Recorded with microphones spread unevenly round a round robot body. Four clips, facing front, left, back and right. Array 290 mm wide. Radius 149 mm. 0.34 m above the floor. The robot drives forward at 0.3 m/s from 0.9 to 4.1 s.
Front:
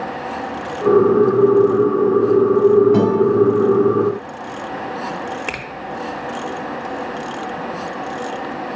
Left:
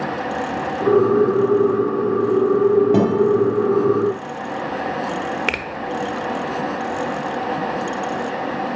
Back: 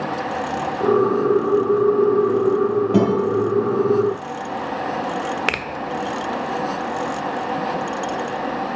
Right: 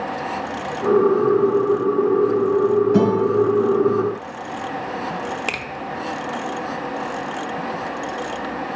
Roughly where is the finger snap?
Left.